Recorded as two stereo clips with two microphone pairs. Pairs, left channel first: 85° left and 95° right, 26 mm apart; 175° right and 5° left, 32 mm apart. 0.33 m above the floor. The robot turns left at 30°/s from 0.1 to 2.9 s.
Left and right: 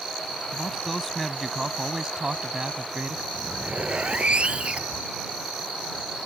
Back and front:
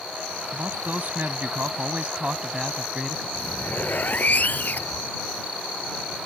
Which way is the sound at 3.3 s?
135° right.